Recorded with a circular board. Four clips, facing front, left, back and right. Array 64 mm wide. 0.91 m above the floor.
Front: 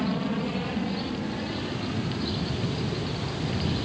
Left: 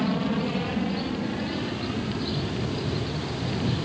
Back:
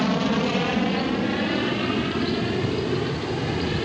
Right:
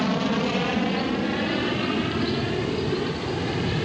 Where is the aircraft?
150° right; by 3.9 s 135° right.